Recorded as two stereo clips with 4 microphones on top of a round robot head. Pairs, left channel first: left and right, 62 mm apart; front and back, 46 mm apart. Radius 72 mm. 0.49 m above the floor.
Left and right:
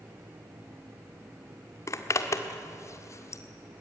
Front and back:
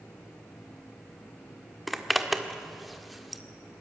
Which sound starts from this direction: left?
A zipper, at 1.9 s.